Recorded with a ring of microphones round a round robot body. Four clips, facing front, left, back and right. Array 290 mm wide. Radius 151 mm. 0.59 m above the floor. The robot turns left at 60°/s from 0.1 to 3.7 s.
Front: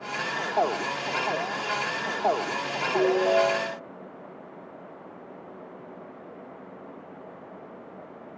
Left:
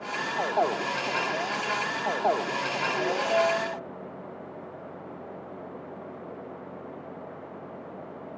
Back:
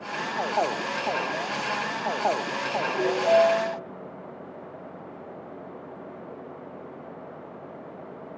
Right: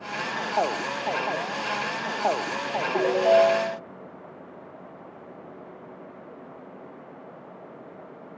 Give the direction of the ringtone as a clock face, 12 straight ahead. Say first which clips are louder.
Right 8 dB, back 1 dB; 2 o'clock.